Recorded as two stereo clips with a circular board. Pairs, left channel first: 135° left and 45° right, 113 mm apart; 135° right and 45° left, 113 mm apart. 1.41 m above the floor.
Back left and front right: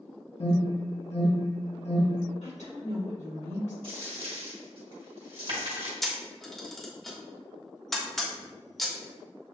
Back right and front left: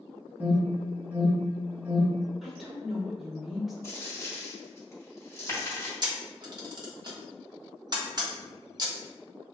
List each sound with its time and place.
0.4 s an alarm: 120° left, 1.4 m
2.4 s a woman speaking: 135° left, 2 m
3.8 s a dropped coin: 75° right, 1.6 m
6.0 s a camera shutter: 50° left, 1.1 m